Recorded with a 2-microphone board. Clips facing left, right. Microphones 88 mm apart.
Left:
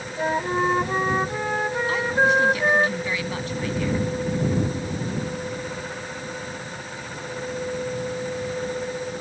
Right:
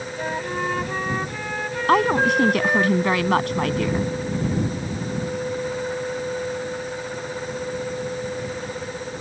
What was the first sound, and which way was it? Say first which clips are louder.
A flute: left 5 dB; 20° left (ahead or behind).